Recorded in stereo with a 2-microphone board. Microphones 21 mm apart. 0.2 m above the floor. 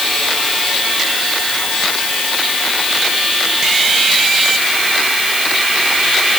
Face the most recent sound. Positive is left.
No sound to turn to.